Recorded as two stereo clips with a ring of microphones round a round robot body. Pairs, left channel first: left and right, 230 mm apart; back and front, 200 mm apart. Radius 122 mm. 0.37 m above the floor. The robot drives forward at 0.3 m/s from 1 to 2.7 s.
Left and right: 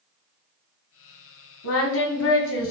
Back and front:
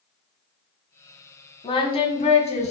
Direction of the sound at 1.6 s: 115° left.